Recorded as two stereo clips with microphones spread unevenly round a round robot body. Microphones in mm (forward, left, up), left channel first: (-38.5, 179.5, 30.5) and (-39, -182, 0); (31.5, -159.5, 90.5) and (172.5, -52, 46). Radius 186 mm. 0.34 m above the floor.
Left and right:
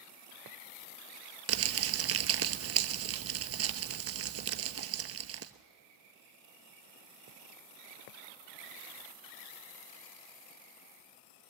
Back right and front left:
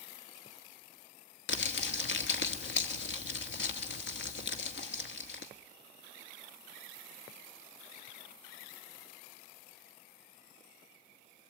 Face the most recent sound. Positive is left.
turn(degrees=-145)